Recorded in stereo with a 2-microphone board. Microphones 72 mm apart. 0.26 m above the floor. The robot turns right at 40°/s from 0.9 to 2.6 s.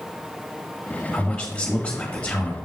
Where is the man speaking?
10° left (ahead or behind), 1.1 m; by 2.6 s 20° left (ahead or behind), 1.1 m.